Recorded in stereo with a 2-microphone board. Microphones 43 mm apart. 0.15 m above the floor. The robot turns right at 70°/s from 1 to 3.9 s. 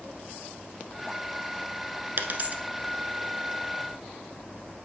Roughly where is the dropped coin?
Right.